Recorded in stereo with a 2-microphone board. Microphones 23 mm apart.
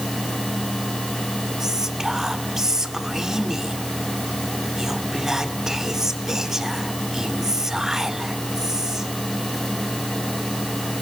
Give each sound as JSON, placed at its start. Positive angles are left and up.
{"t": 1.6, "sound": "whispering", "side_deg": -25, "distance_m": 2.0}